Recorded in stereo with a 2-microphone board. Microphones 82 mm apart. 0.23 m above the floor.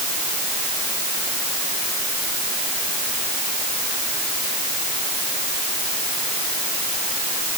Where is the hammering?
I don't hear hammering.